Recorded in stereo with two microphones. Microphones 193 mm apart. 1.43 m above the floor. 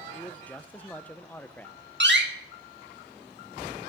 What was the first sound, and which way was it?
A man speaking, 10° left (ahead or behind).